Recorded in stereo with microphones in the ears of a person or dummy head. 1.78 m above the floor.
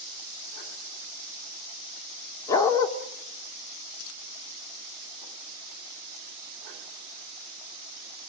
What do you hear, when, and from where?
2.5 s a dog barking: 15° left (ahead or behind), 2.5 m